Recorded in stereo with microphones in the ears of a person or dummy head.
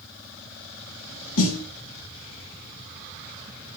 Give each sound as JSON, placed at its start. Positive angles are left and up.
{"t": 1.4, "sound": "a snare drum", "side_deg": 85, "distance_m": 1.8}